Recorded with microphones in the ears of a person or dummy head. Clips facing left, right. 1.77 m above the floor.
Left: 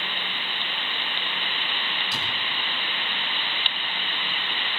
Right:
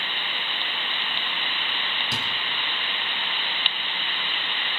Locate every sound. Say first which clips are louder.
2.1 s a thud: right 4 dB; 65° right (ahead or behind), 6.5 m